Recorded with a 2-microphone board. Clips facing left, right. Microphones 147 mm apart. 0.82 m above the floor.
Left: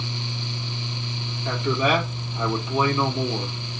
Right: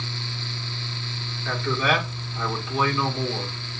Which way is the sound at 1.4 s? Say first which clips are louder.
Left 2 dB; 20° left (ahead or behind).